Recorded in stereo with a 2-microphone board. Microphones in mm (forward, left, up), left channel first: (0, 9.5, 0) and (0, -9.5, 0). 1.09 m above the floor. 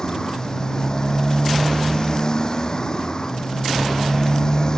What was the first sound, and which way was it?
A motorcycle, 35° left (ahead or behind).